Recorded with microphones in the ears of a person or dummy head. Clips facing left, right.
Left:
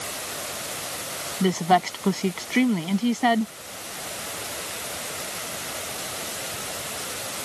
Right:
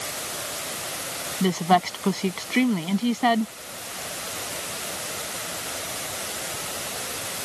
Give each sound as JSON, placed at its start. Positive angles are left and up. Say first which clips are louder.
{"t": 1.4, "sound": "a woman speaking", "louder": "even", "side_deg": 5}